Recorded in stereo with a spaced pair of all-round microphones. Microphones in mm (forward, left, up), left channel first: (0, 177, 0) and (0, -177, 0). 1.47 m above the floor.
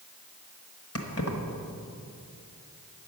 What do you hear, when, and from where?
0.9 s keys jangling: 40° left (ahead or behind), 1.3 m